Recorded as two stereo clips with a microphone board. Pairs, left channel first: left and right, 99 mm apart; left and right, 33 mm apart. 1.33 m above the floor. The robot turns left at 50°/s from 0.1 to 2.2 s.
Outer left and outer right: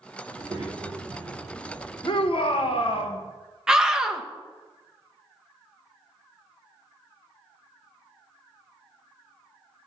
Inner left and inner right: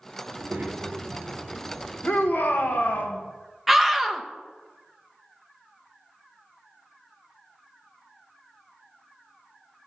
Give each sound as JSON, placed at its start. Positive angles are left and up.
{"t": 0.3, "sound": "a child speaking", "azimuth_deg": -55, "distance_m": 2.0}
{"t": 2.0, "sound": "a shout", "side_deg": 55, "distance_m": 1.3}
{"t": 3.7, "sound": "a scream", "side_deg": -5, "distance_m": 1.1}